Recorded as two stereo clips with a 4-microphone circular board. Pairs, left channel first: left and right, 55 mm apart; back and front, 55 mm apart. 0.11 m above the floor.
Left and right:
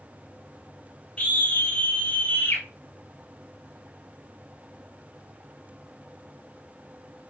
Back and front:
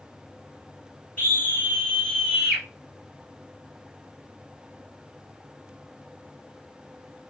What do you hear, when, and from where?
1.2 s a scream: 150° left, 2 m; by 2.6 s 105° left, 1.9 m